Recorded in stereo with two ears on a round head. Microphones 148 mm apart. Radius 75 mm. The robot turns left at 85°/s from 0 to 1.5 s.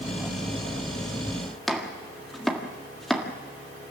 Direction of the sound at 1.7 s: Centre (ahead or behind).